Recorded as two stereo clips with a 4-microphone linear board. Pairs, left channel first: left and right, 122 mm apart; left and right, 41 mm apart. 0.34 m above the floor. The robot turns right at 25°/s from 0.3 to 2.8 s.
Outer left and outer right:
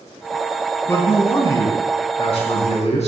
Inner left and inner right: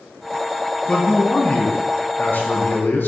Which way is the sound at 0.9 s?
20° left.